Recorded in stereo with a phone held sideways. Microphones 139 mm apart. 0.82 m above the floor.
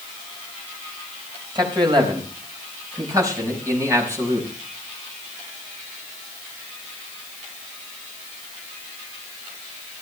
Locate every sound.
1.6 s a man speaking: 35° right (ahead or behind), 4 m; by 4.5 s 20° right (ahead or behind), 5.5 m